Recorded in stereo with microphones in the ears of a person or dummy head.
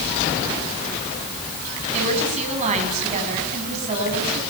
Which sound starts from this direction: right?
A woman speaking, at 1.9 s.